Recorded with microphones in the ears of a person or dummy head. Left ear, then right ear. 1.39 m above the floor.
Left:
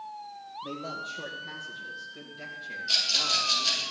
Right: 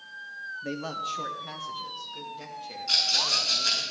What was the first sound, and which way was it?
A man speaking, 50° right (ahead or behind).